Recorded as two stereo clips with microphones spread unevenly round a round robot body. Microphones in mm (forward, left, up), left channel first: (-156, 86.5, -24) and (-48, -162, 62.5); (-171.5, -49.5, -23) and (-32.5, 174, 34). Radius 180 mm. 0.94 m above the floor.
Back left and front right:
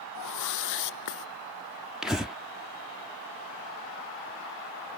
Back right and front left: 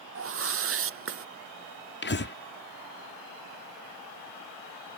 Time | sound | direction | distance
0.1 | a whoosh | 90° left | ?
2.0 | breathing | 160° right | ?